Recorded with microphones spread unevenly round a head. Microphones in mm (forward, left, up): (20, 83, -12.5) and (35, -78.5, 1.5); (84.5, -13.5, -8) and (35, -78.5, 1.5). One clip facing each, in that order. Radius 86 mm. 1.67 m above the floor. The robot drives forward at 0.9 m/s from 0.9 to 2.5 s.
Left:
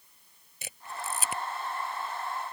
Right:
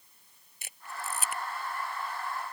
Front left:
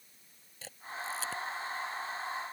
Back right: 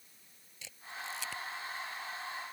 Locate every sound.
0.6 s a camera shutter: 125° left; by 1.4 s 130° left